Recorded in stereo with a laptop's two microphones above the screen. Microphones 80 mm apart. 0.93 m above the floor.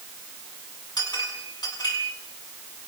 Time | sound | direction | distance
1.0 | a clink | 65° left (ahead or behind) | 6 m